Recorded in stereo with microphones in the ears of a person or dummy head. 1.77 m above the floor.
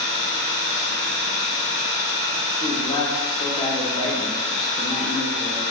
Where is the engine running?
70° left (ahead or behind), 0.8 m.